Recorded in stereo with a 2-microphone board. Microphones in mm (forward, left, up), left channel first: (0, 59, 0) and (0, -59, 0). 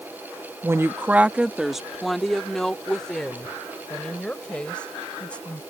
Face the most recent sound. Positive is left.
turn(degrees=10)  # may be behind; listen again after turning